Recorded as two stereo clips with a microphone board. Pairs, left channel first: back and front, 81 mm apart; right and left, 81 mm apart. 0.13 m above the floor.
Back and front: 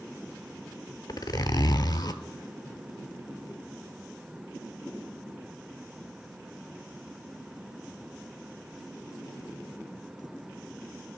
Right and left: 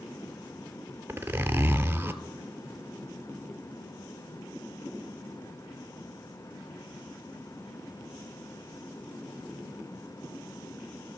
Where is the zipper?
145° left, 0.5 m.